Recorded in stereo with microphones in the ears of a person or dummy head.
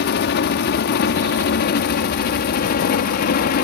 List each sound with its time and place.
0.0 s a helicopter: 60° left (ahead or behind); by 3.6 s 55° left (ahead or behind)